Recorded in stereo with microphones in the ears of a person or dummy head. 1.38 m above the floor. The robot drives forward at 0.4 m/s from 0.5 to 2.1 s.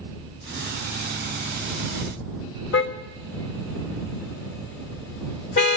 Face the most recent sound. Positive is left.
turn(degrees=75)  # may be behind; listen again after turning